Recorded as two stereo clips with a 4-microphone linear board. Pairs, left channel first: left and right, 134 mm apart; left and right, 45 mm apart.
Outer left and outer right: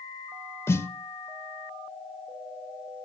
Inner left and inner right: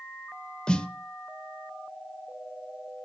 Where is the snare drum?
20° left (ahead or behind), 0.7 m.